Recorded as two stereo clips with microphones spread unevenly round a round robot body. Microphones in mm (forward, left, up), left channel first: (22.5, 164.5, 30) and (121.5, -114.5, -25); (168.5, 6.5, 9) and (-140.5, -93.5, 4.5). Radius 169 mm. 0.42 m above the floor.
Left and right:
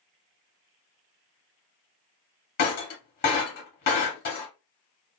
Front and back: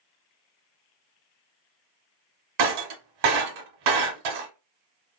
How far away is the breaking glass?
About 1.0 m.